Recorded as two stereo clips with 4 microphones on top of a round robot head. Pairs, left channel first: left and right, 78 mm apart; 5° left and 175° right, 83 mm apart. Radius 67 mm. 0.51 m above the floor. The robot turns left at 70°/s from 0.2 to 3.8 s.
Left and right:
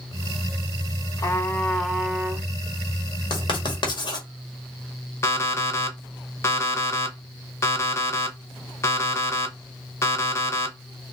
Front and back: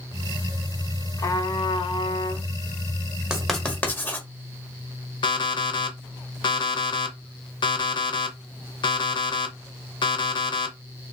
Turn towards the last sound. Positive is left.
turn(degrees=35)